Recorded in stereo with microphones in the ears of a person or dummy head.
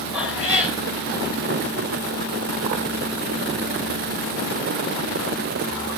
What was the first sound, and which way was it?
A cat meowing, 10° right (ahead or behind).